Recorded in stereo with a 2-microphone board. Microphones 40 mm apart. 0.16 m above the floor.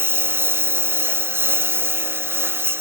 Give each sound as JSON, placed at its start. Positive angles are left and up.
{"t": 0.0, "sound": "a lawn mower", "side_deg": -70}